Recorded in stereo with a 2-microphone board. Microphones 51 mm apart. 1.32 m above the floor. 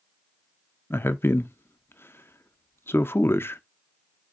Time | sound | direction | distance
0.9 | a man speaking | 50° left (ahead or behind) | 0.5 m